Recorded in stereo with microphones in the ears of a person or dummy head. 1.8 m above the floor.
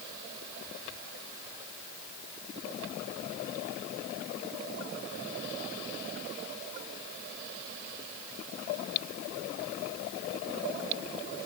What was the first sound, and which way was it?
Only background noise.